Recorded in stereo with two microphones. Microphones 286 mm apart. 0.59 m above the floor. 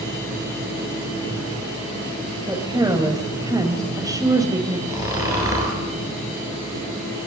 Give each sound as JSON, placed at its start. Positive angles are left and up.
{"t": 2.5, "sound": "a woman speaking", "side_deg": -15, "distance_m": 3.0}
{"t": 4.9, "sound": "snoring", "side_deg": -10, "distance_m": 9.0}